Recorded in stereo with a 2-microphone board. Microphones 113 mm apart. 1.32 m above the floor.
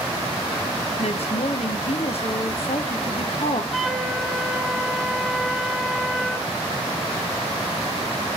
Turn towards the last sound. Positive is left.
turn(degrees=0)  # may be behind; listen again after turning